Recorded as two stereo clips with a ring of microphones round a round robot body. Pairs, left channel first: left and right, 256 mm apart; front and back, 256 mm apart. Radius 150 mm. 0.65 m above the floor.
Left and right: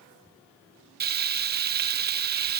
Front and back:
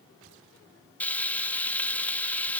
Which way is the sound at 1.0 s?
80° right.